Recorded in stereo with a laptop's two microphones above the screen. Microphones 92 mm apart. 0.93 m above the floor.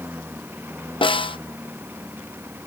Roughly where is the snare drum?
Left.